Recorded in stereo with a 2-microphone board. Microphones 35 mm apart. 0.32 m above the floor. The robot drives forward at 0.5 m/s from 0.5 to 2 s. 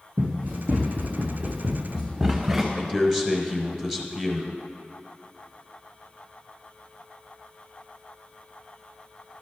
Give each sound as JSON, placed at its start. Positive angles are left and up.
{"t": 0.2, "sound": "running footsteps", "side_deg": -80, "distance_m": 1.8}
{"t": 2.8, "sound": "a man speaking", "side_deg": -15, "distance_m": 1.0}